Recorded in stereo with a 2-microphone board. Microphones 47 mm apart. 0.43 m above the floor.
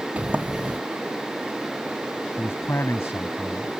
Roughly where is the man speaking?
Left.